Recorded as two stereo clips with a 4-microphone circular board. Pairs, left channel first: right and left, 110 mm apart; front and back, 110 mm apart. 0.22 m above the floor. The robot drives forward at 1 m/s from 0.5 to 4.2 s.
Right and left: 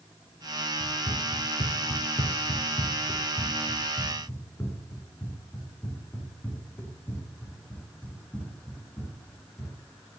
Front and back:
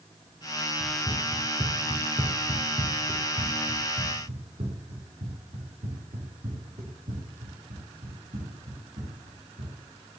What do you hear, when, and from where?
0.8 s running footsteps: 50° right, 2.5 m; by 9.7 s 170° right, 8 m